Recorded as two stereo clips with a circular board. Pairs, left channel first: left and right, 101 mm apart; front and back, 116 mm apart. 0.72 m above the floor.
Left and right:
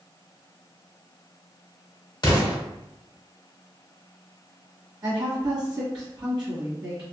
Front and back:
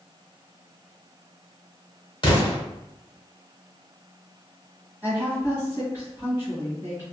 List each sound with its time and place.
2.2 s an explosion: 45° left, 1.0 m
5.0 s a woman speaking: 115° right, 1.3 m